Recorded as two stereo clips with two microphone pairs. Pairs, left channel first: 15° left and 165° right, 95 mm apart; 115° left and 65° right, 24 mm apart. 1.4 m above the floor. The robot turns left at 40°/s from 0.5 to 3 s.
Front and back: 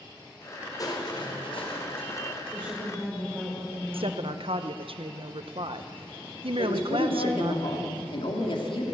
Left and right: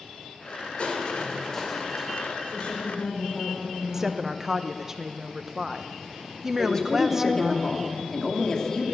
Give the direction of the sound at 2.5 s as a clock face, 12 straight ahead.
8 o'clock.